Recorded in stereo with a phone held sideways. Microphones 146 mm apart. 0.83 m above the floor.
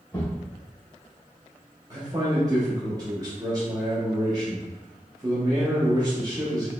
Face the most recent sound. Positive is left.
turn(degrees=-25)  # may be behind; listen again after turning